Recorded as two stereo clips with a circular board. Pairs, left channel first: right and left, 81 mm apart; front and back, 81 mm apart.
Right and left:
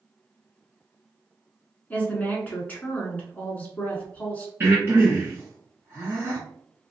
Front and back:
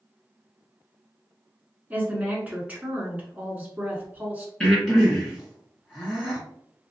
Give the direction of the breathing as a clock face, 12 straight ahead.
9 o'clock.